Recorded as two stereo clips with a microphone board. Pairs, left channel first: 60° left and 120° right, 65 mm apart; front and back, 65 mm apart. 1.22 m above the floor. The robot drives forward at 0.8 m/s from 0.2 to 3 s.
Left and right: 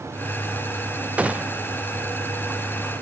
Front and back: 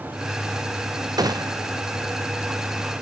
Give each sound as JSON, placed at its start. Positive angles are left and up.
{"t": 1.2, "sound": "a gunshot", "azimuth_deg": 170}